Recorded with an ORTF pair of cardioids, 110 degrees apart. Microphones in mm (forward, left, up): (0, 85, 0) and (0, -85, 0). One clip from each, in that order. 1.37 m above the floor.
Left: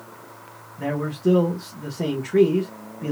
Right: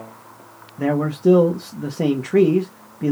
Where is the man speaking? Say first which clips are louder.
Right 5 dB; 40° right, 1.4 m.